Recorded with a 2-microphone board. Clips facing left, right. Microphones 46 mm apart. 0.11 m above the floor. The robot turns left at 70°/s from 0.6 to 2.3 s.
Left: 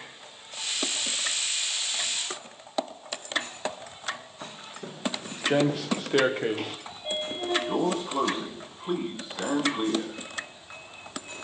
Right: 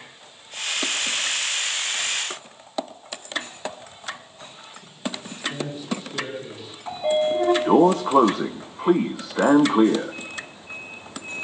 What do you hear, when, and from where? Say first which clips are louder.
4.4 s footsteps: left 3 dB; 80° left, 1.7 m; by 6.8 s 50° left (ahead or behind), 2.5 m
6.9 s a sliding door: right 12 dB; 80° right, 1.7 m